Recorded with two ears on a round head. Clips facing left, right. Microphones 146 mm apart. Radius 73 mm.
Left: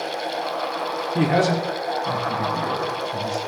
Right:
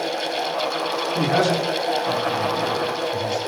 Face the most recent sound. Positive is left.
turn(degrees=15)  # may be behind; listen again after turning